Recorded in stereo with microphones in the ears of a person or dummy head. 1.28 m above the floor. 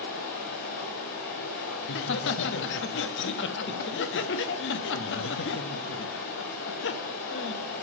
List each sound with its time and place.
0.0 s running water: 50° left (ahead or behind), 1.5 m
1.8 s laughter: 55° left (ahead or behind), 0.6 m